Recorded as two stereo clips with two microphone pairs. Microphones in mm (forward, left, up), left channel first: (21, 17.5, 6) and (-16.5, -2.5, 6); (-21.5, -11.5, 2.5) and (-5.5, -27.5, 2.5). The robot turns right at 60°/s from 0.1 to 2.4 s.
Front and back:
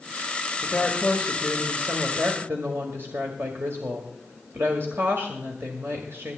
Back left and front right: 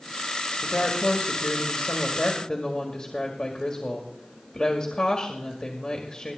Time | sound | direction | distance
0.6 | a woman speaking | 85° left | 2.0 m